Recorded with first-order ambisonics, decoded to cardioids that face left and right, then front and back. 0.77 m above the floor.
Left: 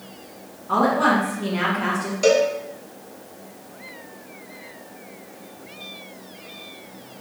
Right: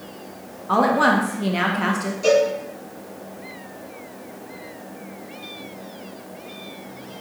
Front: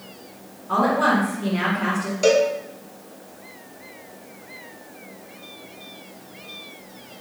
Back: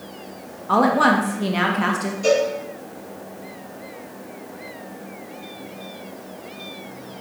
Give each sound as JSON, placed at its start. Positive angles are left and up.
{"t": 0.7, "sound": "a woman speaking", "azimuth_deg": -150, "distance_m": 0.6}
{"t": 2.2, "sound": "a cowbell", "azimuth_deg": 40, "distance_m": 0.9}